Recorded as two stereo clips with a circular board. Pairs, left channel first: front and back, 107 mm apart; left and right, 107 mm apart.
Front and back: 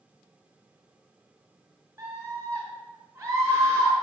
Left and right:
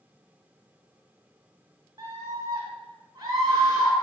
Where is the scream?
135° right, 2.5 m.